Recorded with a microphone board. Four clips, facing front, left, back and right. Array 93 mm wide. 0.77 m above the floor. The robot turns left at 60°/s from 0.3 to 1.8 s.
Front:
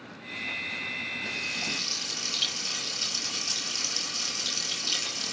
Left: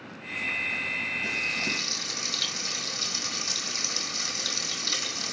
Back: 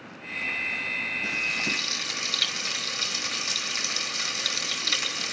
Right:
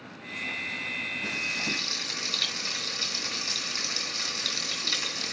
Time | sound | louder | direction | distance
1.2 | frying | left 2 dB, back 5 dB | 150° right | 5 m